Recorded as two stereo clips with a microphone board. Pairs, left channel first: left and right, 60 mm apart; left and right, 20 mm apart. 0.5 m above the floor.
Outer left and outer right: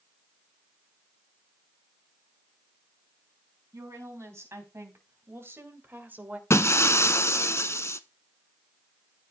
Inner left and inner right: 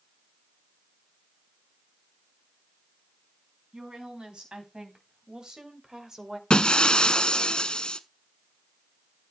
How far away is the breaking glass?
About 0.7 m.